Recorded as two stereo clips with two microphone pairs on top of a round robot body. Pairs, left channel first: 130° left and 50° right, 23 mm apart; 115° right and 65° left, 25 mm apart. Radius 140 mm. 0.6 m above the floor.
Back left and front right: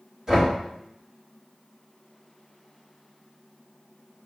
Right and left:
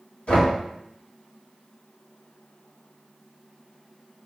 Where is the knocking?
110° right, 1.8 m.